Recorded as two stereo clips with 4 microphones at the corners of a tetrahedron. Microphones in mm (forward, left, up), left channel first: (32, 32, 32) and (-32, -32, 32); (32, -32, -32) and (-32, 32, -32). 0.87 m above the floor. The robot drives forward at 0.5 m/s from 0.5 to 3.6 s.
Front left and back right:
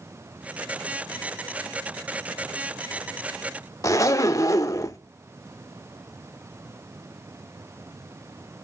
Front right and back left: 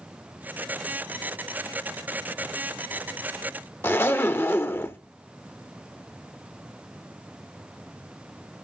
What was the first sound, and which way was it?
A zipper, 10° left.